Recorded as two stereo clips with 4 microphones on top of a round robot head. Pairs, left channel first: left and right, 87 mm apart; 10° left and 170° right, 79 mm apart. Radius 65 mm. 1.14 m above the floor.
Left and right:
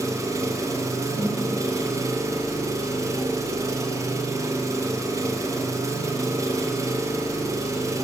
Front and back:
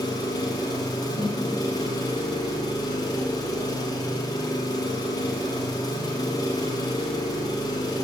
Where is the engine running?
35° right, 1.2 m.